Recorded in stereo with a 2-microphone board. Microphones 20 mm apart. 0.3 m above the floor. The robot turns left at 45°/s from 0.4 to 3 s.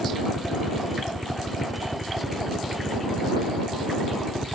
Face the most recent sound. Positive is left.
turn(degrees=10)  # may be behind; listen again after turning